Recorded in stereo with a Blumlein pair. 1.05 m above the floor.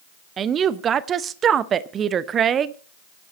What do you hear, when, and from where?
0.4 s a woman speaking: 25° right, 0.8 m